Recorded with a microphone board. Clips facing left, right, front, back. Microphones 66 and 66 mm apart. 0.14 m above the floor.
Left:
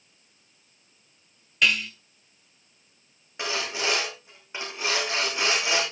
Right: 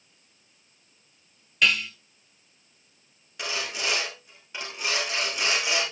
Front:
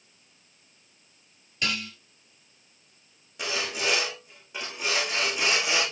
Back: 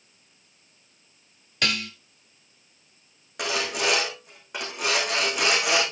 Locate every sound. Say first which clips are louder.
1.6 s dishes clattering: even, back 3 dB; straight behind, 1.6 m
3.4 s sawing: left 2 dB, back 4 dB; 155° left, 5.5 m